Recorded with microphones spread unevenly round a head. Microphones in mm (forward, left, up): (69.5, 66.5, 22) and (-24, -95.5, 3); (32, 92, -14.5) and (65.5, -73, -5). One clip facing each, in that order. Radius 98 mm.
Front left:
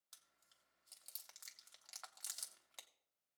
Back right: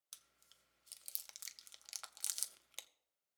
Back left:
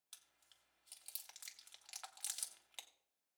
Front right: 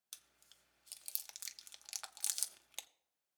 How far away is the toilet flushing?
No toilet flushing in this recording.